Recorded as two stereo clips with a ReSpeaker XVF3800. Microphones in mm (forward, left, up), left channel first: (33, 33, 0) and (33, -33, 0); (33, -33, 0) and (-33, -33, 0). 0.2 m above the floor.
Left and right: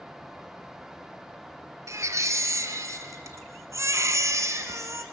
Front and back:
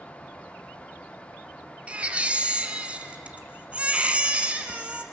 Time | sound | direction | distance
1.9 | a baby crying | 110° right | 1.3 m